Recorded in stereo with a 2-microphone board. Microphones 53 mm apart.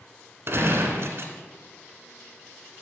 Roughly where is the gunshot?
Right.